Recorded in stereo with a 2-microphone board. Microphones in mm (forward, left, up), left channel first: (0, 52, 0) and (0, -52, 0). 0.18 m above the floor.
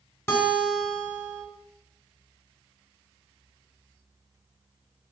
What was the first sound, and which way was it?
A guitar, 25° left (ahead or behind).